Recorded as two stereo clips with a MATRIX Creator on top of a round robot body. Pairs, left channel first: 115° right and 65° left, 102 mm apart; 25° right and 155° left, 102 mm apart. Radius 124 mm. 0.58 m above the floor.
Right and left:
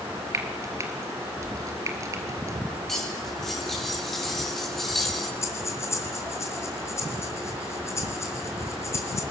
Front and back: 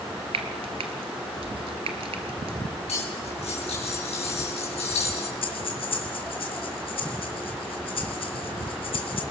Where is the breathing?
50° right, 2.5 m.